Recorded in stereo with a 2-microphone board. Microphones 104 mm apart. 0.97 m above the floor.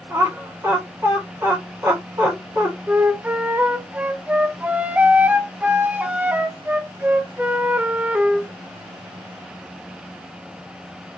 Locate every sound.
0.1 s laughter: 30° right (ahead or behind), 1.5 m
2.9 s a flute: 15° right (ahead or behind), 0.5 m